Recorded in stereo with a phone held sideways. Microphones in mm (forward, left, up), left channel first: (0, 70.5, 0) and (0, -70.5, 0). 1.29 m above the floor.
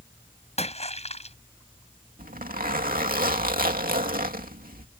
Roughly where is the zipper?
Right.